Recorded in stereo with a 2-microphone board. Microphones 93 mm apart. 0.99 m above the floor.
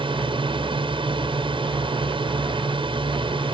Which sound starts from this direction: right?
A drone, at 0.0 s.